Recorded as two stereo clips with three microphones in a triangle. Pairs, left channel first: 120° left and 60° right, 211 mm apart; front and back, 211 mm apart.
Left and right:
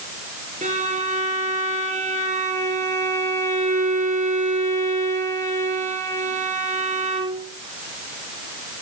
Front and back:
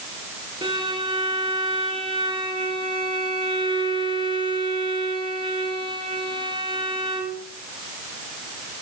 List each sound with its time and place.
0.6 s a violin: 115° right, 4 m